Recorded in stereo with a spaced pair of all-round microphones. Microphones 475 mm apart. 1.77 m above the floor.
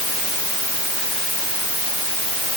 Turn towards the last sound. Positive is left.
No sound to turn to.